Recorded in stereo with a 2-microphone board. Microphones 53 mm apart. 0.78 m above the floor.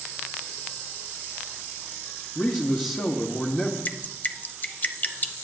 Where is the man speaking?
45° left (ahead or behind), 1.2 m.